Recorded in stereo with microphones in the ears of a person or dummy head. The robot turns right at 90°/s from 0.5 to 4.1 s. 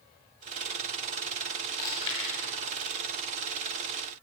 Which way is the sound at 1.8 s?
25° left (ahead or behind).